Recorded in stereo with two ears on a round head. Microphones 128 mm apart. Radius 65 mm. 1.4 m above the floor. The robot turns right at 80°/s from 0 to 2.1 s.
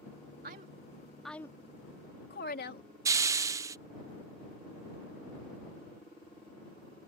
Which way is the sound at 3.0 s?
20° right (ahead or behind).